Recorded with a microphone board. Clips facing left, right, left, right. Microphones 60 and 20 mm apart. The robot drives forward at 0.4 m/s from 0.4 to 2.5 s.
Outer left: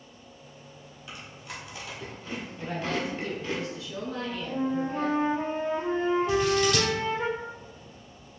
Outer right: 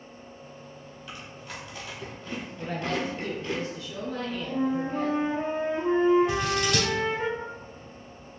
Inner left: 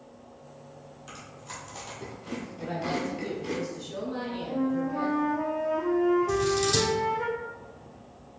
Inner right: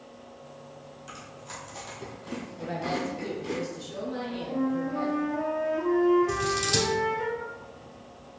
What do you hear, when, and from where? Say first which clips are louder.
1.1 s chewing: even, even; 15° left (ahead or behind), 1.7 m; by 3.6 s 20° left (ahead or behind), 1.2 m
2.6 s a woman speaking: outer right 1 dB, even; 5° left (ahead or behind), 1.4 m
4.1 s a flute: outer right 2 dB, even; 20° right (ahead or behind), 1.8 m
6.3 s scissors: outer left 3 dB, inner left 2 dB; centre (ahead or behind), 1.7 m